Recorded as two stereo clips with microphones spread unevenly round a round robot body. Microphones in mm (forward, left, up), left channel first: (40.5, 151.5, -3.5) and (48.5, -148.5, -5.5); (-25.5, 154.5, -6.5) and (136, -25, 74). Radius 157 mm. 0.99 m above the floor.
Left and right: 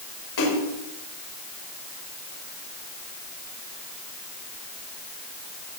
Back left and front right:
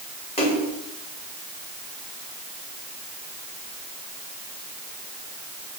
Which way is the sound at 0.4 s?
70° left.